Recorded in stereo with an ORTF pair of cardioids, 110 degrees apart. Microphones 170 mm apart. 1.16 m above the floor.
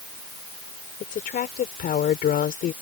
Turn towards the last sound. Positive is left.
turn(degrees=55)